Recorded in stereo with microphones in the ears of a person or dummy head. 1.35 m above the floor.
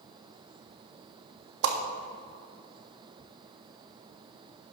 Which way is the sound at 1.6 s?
75° right (ahead or behind).